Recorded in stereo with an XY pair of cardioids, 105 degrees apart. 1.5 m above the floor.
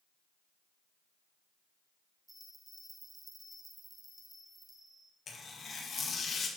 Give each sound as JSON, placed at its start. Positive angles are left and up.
{"t": 2.3, "sound": "a bell", "azimuth_deg": -15, "distance_m": 2.5}
{"t": 5.3, "sound": "tearing paper", "azimuth_deg": 45, "distance_m": 1.8}